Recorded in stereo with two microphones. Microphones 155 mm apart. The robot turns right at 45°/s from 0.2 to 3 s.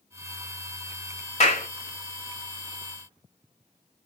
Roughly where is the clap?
Left.